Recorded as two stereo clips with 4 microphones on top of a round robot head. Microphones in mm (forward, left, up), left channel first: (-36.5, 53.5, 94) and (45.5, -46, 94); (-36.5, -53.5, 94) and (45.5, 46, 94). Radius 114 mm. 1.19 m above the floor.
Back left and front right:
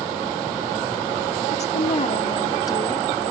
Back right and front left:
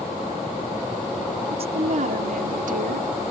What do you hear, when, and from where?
1.5 s a woman speaking: 95° left; by 3.1 s 60° left